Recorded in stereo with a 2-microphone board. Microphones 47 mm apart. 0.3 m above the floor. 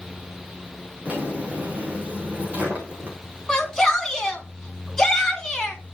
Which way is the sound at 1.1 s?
30° right (ahead or behind).